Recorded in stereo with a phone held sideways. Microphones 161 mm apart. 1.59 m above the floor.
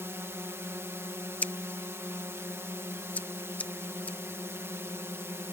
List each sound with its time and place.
0.0 s a drone: 15° right (ahead or behind)
1.4 s scissors: 10° left (ahead or behind)